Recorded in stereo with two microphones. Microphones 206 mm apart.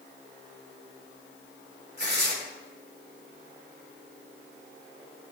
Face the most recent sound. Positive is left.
turn(degrees=-55)  # may be behind; listen again after turning